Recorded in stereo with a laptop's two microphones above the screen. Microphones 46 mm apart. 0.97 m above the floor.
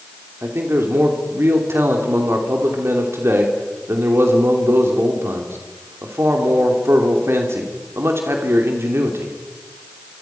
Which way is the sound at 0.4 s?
60° right (ahead or behind).